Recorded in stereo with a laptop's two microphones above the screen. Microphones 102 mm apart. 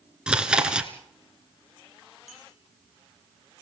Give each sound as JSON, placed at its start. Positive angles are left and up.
{"t": 0.3, "sound": "chewing", "side_deg": -10, "distance_m": 2.0}
{"t": 2.3, "sound": "a clink", "side_deg": 85, "distance_m": 9.5}